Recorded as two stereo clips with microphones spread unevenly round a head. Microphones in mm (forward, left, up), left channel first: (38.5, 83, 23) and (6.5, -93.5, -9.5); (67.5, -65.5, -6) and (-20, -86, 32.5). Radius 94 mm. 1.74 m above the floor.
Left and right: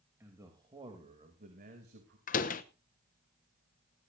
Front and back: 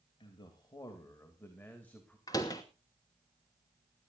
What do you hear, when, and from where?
0.2 s a man speaking: 20° right, 3 m; by 2.2 s 70° right, 3 m
2.3 s a door slam: 95° left, 1.0 m